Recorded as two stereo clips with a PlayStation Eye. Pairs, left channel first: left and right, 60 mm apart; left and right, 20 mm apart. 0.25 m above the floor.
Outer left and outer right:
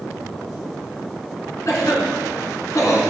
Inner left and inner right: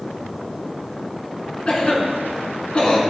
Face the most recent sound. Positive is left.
turn(degrees=55)  # may be behind; listen again after turning